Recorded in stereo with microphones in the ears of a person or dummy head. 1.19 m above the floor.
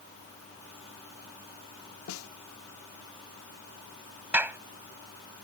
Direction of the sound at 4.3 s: Centre (ahead or behind).